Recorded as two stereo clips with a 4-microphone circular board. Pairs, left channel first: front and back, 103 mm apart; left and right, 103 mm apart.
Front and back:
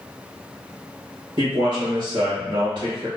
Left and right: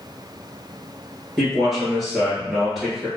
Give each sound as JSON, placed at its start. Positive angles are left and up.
{"t": 1.4, "sound": "a man speaking", "azimuth_deg": -175, "distance_m": 1.7}